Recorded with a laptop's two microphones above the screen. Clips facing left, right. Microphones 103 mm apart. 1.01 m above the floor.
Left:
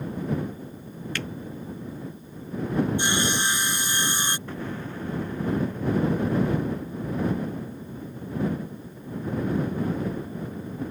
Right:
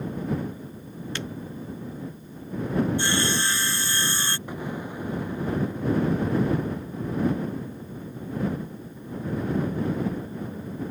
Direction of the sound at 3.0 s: 20° left (ahead or behind).